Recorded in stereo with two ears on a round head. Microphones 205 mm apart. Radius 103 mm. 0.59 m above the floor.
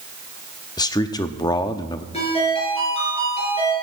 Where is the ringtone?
25° left (ahead or behind), 6 m.